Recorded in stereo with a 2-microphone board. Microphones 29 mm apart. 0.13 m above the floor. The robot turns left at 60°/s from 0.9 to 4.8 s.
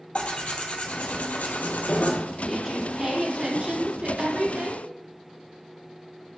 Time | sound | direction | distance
0.1 | tearing paper | 135° left | 0.7 m
2.4 | a woman speaking | 10° left | 1.4 m